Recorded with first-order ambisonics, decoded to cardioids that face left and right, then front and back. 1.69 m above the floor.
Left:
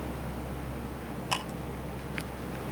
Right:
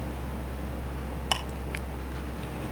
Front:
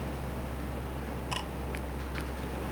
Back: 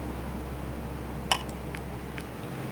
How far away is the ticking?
About 4.5 m.